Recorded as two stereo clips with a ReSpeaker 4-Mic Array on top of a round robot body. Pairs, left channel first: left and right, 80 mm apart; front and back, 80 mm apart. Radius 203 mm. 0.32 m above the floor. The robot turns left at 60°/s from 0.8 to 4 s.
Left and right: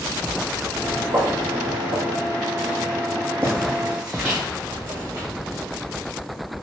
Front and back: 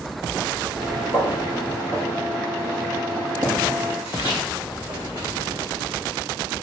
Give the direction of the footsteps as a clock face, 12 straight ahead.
2 o'clock.